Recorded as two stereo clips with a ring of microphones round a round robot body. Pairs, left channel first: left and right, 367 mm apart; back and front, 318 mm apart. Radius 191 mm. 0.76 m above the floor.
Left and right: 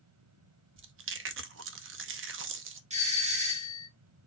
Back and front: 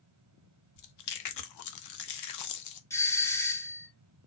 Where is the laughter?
I don't hear laughter.